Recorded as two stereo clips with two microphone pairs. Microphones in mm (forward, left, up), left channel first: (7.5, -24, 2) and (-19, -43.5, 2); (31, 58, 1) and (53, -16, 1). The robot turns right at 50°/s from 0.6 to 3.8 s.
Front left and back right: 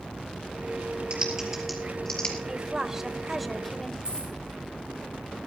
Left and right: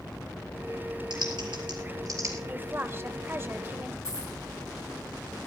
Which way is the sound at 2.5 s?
110° right.